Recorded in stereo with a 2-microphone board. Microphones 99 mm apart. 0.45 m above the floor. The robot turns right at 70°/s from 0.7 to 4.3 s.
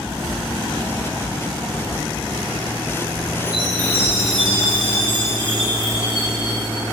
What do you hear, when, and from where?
3.5 s a chime: 170° right, 4.5 m; by 6.8 s 110° right, 4.5 m